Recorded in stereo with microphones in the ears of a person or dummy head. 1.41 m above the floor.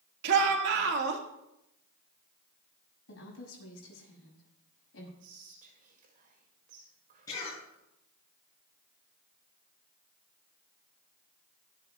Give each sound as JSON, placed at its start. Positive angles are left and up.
{"t": 0.2, "sound": "a shout", "side_deg": -65, "distance_m": 2.0}
{"t": 3.1, "sound": "a woman speaking", "side_deg": 75, "distance_m": 7.5}
{"t": 5.2, "sound": "whispering", "side_deg": -50, "distance_m": 2.5}
{"t": 7.3, "sound": "a cough", "side_deg": 20, "distance_m": 7.5}